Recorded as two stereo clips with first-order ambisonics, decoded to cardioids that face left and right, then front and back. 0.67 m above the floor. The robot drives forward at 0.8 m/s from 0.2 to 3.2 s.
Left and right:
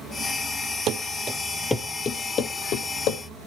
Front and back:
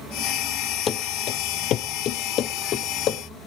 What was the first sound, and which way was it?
Running footsteps, 55° right.